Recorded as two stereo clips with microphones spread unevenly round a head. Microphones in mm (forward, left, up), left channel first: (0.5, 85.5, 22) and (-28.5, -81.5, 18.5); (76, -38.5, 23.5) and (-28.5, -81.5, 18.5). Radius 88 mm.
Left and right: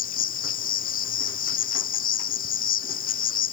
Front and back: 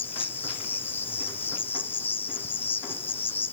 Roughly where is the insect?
Left.